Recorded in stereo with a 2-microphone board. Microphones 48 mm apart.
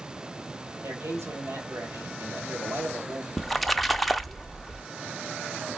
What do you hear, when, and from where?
0.8 s a man speaking: 70° right (ahead or behind), 1.9 m
3.4 s a splash: centre (ahead or behind), 0.5 m